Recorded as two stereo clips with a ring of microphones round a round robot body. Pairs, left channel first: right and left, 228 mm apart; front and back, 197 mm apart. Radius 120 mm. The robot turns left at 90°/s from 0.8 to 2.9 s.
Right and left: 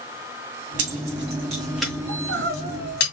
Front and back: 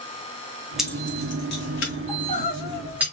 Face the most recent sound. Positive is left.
turn(degrees=5)